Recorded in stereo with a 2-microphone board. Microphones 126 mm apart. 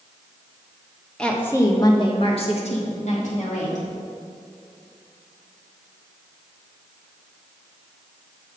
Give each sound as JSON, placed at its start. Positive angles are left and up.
{"t": 1.2, "sound": "a woman speaking", "side_deg": 5, "distance_m": 1.3}